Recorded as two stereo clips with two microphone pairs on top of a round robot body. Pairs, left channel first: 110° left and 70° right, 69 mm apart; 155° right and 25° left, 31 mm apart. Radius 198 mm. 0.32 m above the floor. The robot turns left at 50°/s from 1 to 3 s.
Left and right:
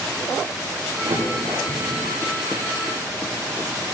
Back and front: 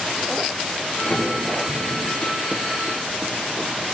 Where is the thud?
80° right, 7.5 m; by 2.3 s 145° right, 7.5 m.